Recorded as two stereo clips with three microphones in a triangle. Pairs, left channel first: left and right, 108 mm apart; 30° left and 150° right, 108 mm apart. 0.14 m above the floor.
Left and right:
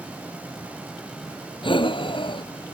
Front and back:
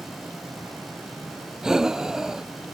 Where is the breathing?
125° left.